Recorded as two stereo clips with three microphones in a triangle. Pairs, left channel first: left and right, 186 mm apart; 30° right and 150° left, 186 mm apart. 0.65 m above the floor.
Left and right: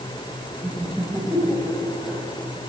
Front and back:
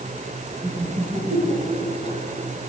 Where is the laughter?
170° right, 4 m.